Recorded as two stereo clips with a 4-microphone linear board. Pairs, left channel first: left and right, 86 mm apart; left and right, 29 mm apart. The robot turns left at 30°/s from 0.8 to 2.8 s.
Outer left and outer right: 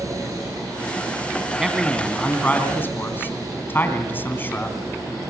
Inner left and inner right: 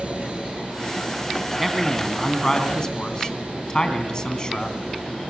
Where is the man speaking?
175° right, 2.5 m; by 5.2 s 150° left, 2.5 m.